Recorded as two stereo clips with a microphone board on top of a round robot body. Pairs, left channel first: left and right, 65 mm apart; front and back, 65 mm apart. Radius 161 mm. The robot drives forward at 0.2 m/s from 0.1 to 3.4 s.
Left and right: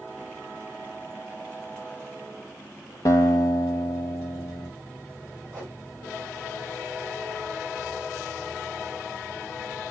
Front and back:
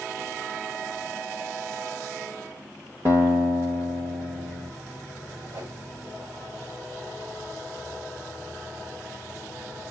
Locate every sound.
3.0 s a guitar: 120° left, 0.5 m; by 4.7 s 130° left, 0.6 m
5.5 s a whoosh: 150° right, 2 m